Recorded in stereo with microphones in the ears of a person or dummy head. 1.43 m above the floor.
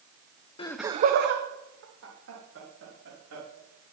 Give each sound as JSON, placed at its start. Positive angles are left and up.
{"t": 0.6, "sound": "laughter", "side_deg": 30, "distance_m": 0.5}